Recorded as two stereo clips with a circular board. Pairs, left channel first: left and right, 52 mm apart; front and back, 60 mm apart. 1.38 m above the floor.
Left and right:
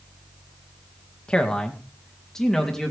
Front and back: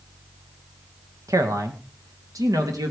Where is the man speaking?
160° left, 1.7 m; by 2.9 s 175° left, 3 m.